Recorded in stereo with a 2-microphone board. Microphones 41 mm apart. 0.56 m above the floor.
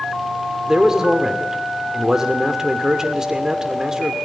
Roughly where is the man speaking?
Centre.